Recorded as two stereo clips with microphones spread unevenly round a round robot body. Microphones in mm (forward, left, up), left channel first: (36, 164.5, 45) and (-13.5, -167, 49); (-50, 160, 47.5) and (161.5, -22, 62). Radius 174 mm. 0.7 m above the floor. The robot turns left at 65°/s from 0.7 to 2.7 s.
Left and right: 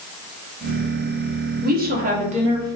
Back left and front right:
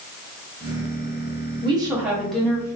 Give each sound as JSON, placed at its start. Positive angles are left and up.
{"t": 1.6, "sound": "a woman speaking", "azimuth_deg": -95, "distance_m": 1.0}